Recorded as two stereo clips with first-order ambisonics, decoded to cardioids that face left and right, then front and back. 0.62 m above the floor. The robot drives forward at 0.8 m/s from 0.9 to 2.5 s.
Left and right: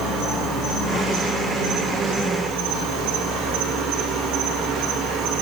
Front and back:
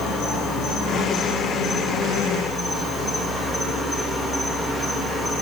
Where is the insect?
50° right, 2.5 m; by 5.4 s 80° right, 2 m.